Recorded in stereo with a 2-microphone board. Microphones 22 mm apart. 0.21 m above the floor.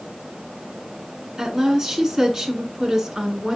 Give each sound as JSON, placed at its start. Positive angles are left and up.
{"t": 1.4, "sound": "a woman speaking", "side_deg": -25, "distance_m": 1.9}